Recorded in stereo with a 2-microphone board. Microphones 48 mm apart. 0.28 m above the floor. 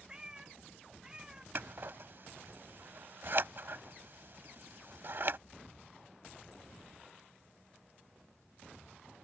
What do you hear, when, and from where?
0.1 s a cat meowing: 20° right (ahead or behind)
1.6 s scissors: 55° right (ahead or behind)